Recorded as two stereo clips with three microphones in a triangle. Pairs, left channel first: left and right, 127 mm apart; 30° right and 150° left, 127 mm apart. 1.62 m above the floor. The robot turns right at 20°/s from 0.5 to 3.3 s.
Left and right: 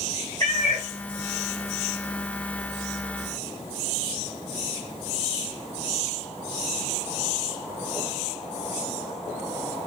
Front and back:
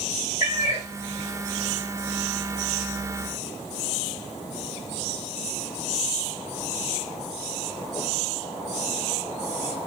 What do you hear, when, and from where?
0.4 s a cat meowing: 140° left, 1.7 m; by 0.9 s 150° left, 1.7 m